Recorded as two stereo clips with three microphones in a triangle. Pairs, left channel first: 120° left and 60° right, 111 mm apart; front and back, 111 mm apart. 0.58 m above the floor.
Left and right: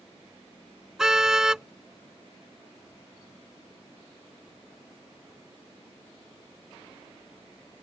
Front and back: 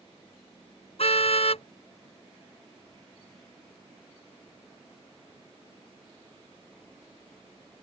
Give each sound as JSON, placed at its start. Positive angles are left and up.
{"t": 1.0, "sound": "a car horn", "azimuth_deg": 25}